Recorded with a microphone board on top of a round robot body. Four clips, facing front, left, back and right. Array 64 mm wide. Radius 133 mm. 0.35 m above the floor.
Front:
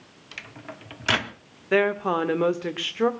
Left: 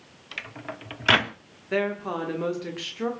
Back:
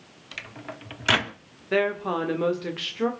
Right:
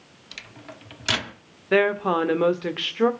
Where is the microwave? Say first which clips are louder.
Left 6 dB, back 2 dB; 100° left, 0.9 m.